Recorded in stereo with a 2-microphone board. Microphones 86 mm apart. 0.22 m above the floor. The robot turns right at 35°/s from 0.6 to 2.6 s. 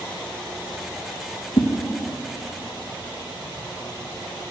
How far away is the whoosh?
About 1.5 m.